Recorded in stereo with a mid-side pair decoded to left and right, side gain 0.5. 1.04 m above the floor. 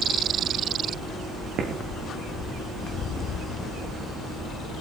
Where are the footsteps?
60° right, 4.5 m.